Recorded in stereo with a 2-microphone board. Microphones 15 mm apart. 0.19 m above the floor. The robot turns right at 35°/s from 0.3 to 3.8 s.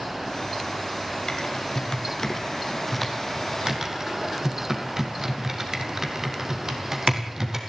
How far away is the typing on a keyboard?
About 2.5 m.